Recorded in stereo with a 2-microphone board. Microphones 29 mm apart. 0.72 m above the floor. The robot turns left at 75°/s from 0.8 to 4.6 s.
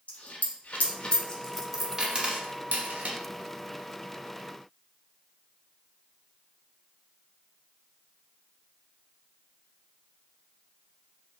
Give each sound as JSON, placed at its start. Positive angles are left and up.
{"t": 0.1, "sound": "a dropped coin", "side_deg": 65, "distance_m": 0.5}